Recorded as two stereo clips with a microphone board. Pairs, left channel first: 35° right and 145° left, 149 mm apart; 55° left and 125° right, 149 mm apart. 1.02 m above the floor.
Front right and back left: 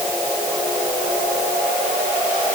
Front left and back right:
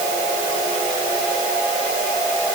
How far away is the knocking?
I don't hear knocking.